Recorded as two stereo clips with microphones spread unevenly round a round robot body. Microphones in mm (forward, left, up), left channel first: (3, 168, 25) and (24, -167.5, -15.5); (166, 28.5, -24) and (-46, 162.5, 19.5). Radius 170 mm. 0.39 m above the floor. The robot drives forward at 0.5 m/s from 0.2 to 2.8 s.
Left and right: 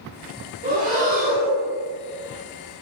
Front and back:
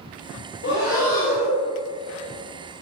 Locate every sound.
0.6 s breathing: 35° right, 1.4 m; by 1.7 s 60° right, 1.1 m